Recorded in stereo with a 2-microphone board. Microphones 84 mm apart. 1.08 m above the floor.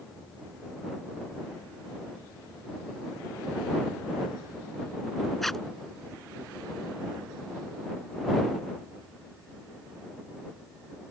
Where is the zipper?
Centre (ahead or behind).